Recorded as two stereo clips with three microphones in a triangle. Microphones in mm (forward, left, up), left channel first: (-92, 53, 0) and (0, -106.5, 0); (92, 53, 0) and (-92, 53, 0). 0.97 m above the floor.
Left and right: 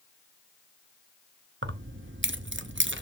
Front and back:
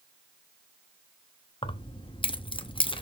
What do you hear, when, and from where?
1.6 s keys jangling: 60° right, 0.7 m